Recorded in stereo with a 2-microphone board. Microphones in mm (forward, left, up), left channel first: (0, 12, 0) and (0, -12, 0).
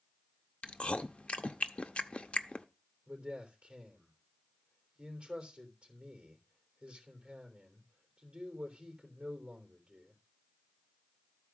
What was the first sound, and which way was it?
Chewing, 55° left (ahead or behind).